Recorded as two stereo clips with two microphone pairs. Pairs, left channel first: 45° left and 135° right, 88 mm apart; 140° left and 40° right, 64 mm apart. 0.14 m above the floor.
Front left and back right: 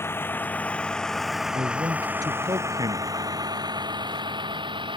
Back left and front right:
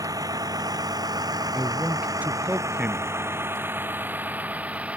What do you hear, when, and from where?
0.0 s a vehicle: 20° right; by 5.0 s 110° right
1.5 s a man speaking: 105° right